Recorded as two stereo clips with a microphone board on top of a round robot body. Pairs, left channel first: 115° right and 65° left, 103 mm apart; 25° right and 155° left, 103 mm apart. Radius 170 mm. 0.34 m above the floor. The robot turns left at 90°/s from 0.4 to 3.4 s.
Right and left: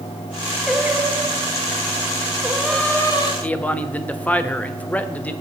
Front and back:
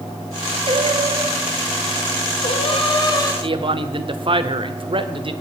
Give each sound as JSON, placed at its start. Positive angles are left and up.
{"t": 0.7, "sound": "singing", "azimuth_deg": 155, "distance_m": 1.9}
{"t": 3.4, "sound": "a man speaking", "azimuth_deg": 175, "distance_m": 1.3}